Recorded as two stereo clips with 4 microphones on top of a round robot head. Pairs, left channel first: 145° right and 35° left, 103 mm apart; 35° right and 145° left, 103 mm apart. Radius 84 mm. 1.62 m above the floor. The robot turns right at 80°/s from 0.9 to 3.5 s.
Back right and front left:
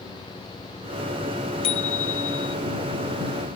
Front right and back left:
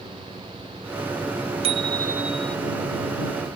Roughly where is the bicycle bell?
Behind.